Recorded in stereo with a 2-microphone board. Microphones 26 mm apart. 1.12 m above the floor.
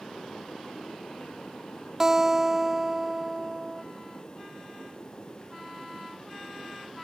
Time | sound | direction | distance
2.0 | a guitar | 20° right (ahead or behind) | ?